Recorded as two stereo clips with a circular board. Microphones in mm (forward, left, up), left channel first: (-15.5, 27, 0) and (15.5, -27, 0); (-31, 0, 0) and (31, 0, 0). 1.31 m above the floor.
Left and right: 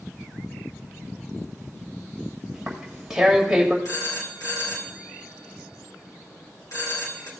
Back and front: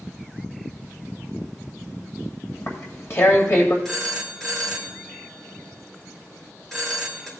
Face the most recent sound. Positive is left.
turn(degrees=100)